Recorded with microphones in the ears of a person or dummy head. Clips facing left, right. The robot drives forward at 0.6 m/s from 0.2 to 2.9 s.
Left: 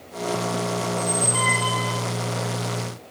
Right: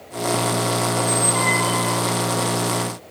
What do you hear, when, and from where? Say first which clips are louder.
0.9 s a squeak: right 4 dB; 10° left (ahead or behind), 1.6 m; by 2.0 s 15° left (ahead or behind), 1.0 m